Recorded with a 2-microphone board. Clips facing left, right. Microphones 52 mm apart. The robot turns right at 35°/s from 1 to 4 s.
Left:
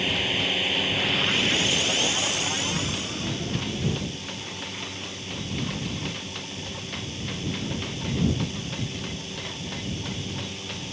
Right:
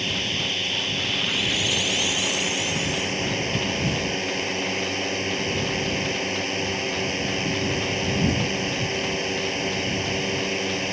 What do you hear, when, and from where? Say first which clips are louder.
0.0 s a drone: left 1 dB; 170° left; by 10.9 s 85° right